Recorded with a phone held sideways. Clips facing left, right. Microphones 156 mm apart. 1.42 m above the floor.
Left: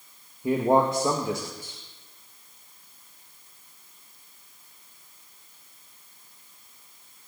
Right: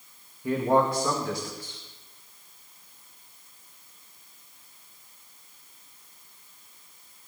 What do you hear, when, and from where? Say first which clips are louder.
0.4 s a man speaking: left 2 dB; 25° left (ahead or behind), 2 m